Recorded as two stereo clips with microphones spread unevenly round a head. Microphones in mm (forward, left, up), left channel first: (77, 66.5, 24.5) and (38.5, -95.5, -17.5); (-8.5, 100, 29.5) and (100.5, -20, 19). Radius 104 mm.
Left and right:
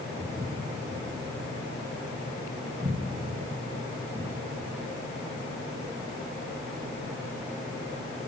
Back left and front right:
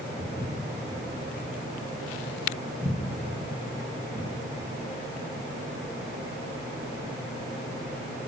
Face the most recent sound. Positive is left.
turn(degrees=175)